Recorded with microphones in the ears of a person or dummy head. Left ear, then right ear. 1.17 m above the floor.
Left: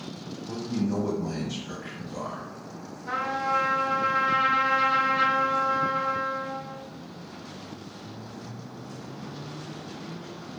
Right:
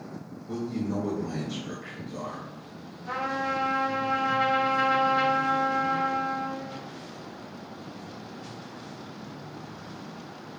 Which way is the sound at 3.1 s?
5° right (ahead or behind).